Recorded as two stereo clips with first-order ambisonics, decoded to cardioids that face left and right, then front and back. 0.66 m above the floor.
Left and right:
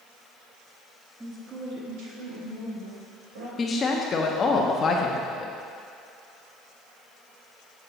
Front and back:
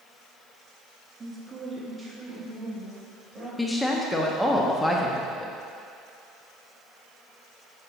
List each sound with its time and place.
1.2 s a woman speaking: 150° right, 0.9 m; by 3.5 s 95° right, 3 m
3.6 s a woman speaking: 75° left, 0.5 m